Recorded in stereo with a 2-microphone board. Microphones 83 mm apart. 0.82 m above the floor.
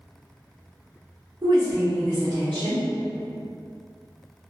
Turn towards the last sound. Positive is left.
turn(degrees=-60)  # may be behind; listen again after turning